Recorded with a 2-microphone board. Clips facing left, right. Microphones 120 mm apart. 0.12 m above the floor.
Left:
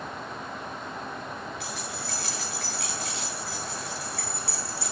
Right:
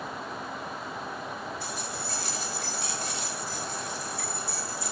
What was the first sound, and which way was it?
Keys jangling, 70° left (ahead or behind).